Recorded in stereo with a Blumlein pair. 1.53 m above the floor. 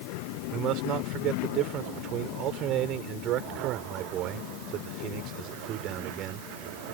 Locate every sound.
0.5 s a man speaking: 35° right